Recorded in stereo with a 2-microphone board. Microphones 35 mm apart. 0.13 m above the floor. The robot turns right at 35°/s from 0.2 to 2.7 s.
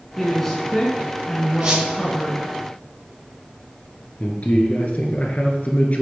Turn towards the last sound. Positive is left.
turn(degrees=50)  # may be behind; listen again after turning